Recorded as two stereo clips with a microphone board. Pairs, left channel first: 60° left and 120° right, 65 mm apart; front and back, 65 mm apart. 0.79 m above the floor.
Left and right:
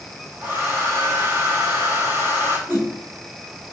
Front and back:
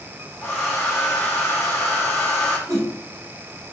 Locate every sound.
0.4 s a hair dryer: 70° right, 1.6 m
2.7 s a whoosh: 175° right, 2.5 m